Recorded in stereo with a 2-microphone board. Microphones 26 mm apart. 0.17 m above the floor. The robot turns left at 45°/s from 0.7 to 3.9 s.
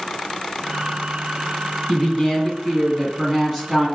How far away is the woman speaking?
About 1.1 m.